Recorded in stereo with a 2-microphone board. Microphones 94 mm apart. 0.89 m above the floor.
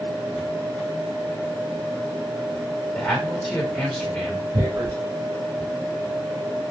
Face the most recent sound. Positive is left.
turn(degrees=-45)  # may be behind; listen again after turning